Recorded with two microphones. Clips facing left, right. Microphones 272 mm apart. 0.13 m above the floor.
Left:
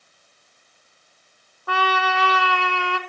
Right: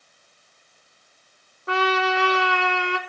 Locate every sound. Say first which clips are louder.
1.7 s a trumpet: right 3 dB; 20° right (ahead or behind), 1.3 m